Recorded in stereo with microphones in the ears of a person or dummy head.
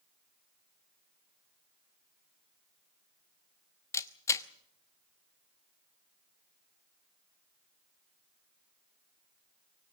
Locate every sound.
3.9 s a camera shutter: 15° left (ahead or behind), 1.1 m